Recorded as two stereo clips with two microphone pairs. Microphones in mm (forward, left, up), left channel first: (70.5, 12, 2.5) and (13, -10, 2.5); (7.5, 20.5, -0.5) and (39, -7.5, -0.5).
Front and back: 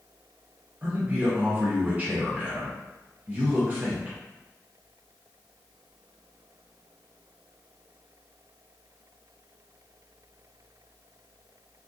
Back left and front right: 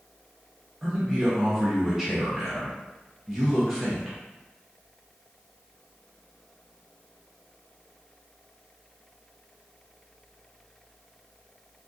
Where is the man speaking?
120° right, 0.7 m.